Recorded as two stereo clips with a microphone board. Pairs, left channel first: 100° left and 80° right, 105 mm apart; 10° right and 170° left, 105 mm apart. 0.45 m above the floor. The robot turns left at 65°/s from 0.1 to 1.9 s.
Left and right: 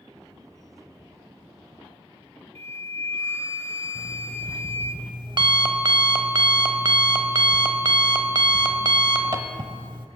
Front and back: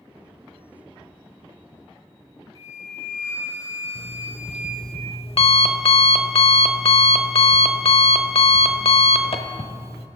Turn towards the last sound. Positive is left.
turn(degrees=-40)